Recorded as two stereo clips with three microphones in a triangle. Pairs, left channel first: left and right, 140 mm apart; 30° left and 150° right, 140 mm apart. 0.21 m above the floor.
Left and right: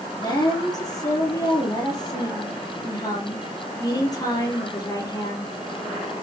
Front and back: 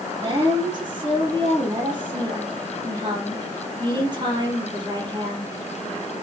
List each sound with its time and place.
0.1 s a woman speaking: 155° left, 5 m